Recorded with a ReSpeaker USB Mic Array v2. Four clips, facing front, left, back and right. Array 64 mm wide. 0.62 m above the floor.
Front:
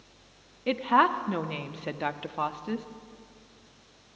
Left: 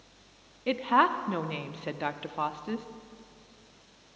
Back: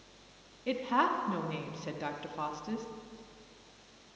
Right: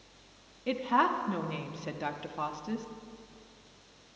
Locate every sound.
0.7 s a woman speaking: 35° left, 0.6 m